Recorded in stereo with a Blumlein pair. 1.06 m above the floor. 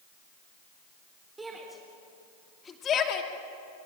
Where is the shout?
10° right, 4 m; by 3.3 s 40° left, 2.5 m.